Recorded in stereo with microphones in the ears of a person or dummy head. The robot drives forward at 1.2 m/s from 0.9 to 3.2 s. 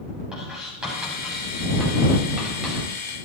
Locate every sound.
0.3 s writing: centre (ahead or behind), 9.5 m; by 2.9 s 5° right (ahead or behind), 7 m